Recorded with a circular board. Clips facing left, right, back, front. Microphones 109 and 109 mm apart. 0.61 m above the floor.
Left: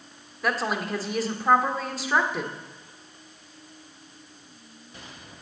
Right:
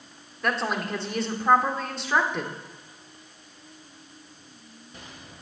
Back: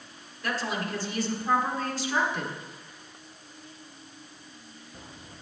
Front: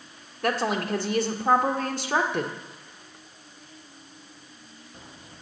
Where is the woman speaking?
5° left, 1.5 m.